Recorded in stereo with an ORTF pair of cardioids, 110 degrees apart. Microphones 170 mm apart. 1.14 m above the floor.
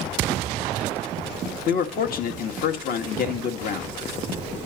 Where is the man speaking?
55° left, 1.6 m.